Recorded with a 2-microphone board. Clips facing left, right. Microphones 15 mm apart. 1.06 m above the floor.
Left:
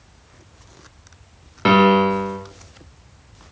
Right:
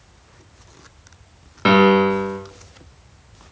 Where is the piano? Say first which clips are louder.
Even; centre (ahead or behind), 0.9 m.